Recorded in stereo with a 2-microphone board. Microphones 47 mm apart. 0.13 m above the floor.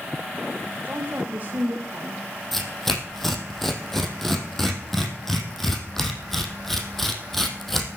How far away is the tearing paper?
About 2.5 m.